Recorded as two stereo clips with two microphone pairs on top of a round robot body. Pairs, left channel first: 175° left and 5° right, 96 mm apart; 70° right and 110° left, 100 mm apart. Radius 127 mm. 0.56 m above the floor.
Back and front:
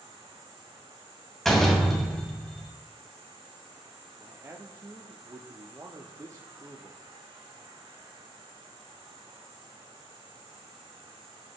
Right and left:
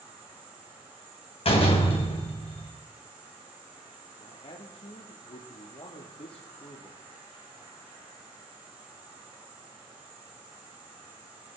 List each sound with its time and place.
0.0 s an insect: 40° left, 8.5 m
1.4 s a door slam: 95° right, 2.5 m
4.2 s a man speaking: 55° right, 1.8 m